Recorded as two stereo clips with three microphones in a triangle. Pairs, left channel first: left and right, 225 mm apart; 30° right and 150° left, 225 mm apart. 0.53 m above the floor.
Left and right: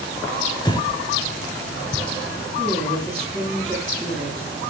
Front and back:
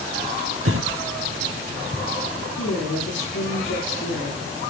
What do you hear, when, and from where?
0.7 s breathing: 160° left, 0.9 m
2.6 s a woman speaking: straight ahead, 7 m